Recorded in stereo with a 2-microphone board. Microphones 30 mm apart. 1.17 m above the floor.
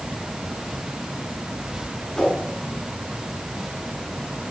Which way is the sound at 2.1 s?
10° left (ahead or behind).